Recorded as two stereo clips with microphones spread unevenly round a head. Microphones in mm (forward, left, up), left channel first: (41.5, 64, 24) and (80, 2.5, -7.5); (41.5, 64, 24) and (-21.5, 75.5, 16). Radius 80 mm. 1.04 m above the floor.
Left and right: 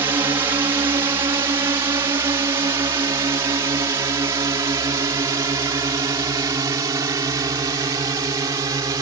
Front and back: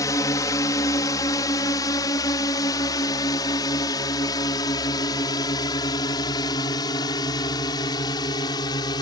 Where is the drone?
40° right; by 9.0 s 35° right.